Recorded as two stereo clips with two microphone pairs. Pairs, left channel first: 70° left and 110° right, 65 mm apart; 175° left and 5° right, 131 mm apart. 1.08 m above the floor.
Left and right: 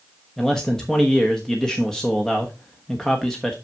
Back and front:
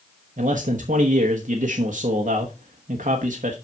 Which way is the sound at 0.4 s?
15° right.